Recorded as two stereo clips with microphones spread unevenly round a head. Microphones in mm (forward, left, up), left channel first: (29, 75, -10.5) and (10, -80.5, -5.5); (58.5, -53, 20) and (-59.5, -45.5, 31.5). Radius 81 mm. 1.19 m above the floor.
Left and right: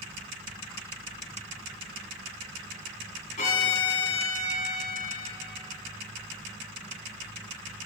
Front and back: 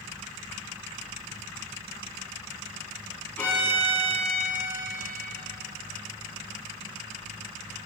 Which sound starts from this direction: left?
A violin, at 3.4 s.